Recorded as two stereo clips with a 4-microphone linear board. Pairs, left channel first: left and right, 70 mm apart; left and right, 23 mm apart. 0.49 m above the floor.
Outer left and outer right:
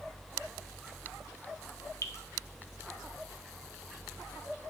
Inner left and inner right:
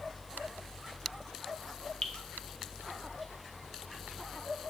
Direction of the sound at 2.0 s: 50° left (ahead or behind).